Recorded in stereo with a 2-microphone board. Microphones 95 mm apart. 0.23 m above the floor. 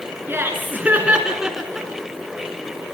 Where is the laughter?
25° right (ahead or behind), 3.5 m; by 1.9 s centre (ahead or behind), 2.5 m.